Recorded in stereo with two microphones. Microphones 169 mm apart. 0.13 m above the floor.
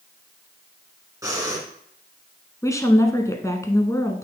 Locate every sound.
1.2 s breathing: 20° right (ahead or behind), 1.8 m
2.6 s a woman speaking: 20° left (ahead or behind), 1.1 m